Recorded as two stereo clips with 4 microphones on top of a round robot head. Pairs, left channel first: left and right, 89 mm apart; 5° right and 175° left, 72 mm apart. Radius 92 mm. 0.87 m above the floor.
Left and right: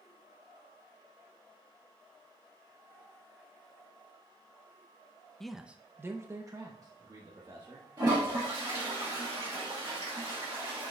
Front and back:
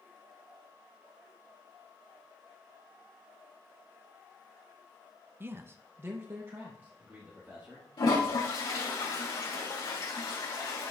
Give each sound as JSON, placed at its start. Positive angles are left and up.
{"t": 5.4, "sound": "a man speaking", "azimuth_deg": 170, "distance_m": 0.6}
{"t": 8.0, "sound": "a toilet flushing", "azimuth_deg": -40, "distance_m": 3.0}